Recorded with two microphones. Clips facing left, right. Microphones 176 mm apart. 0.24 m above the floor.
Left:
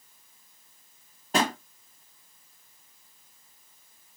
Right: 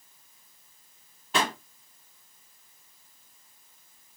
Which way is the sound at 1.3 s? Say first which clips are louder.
Left 2 dB; 40° left (ahead or behind).